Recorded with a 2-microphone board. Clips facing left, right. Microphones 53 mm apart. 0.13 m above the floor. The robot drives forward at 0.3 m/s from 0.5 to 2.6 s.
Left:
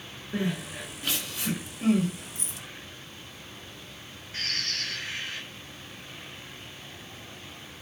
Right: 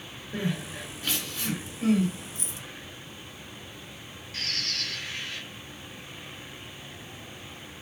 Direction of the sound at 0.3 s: 15° left (ahead or behind).